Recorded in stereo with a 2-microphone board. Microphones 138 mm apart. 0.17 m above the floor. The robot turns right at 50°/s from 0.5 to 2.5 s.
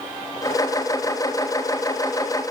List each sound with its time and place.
Only background noise.